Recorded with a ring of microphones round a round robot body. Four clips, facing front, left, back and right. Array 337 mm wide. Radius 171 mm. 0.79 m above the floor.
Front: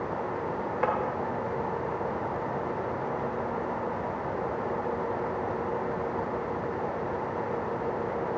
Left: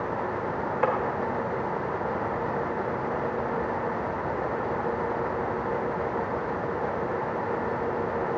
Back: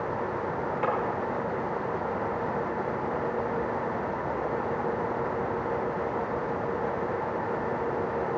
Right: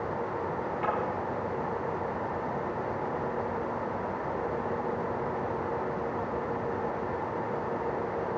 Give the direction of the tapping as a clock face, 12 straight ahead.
10 o'clock.